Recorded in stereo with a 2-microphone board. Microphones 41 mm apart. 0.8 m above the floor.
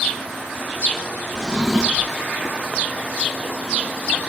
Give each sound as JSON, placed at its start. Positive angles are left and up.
{"t": 1.4, "sound": "a drawer", "side_deg": -10, "distance_m": 0.7}